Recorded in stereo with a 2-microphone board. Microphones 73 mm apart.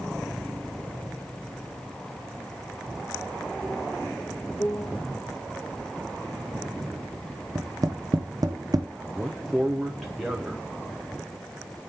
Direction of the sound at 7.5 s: 55° right (ahead or behind).